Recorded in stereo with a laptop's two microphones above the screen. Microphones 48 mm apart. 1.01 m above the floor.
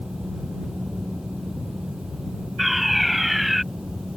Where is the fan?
10° right (ahead or behind).